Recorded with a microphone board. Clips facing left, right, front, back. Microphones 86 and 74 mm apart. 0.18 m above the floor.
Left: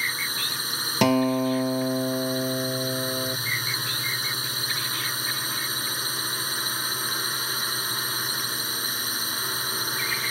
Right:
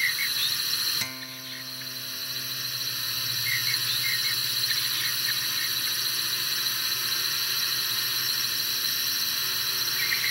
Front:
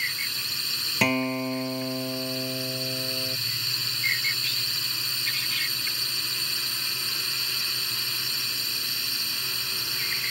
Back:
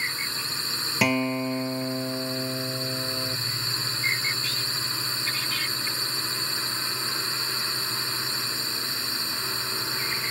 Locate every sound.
0.0 s a drone: 135° left
1.0 s a guitar: 95° left